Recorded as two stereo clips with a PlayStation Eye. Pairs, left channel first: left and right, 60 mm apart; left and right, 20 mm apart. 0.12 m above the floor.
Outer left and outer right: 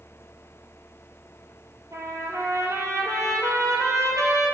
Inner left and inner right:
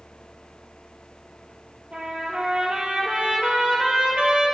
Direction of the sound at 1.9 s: 60° right (ahead or behind).